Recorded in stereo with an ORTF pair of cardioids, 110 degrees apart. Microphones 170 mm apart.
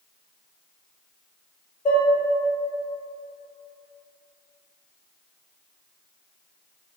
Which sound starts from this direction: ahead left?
Dishes clattering, at 1.9 s.